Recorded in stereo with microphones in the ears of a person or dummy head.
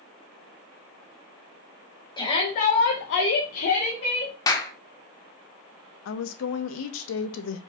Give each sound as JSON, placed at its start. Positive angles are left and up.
{"t": 2.2, "sound": "a shout", "side_deg": 30, "distance_m": 1.0}
{"t": 4.5, "sound": "a clap", "side_deg": 20, "distance_m": 0.7}
{"t": 6.0, "sound": "a woman speaking", "side_deg": 75, "distance_m": 0.6}